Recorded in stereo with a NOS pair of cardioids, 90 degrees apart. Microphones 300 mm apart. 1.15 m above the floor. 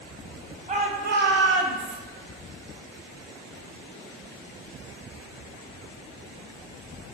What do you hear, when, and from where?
0.7 s a shout: 25° right, 1.0 m; by 2.0 s 70° right, 0.7 m